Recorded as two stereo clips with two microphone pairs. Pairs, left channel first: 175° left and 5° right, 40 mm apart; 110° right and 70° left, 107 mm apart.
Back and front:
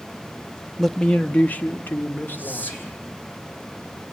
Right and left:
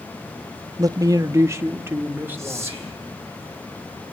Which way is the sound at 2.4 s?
135° left.